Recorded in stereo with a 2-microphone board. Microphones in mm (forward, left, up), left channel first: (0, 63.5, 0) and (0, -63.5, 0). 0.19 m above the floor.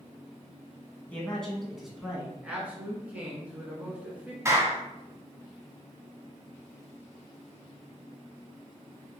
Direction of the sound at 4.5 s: 25° right (ahead or behind).